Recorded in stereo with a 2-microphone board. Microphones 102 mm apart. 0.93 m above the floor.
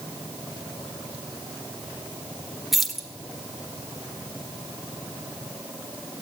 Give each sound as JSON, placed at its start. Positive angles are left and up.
{"t": 2.7, "sound": "keys jangling", "side_deg": 0, "distance_m": 1.8}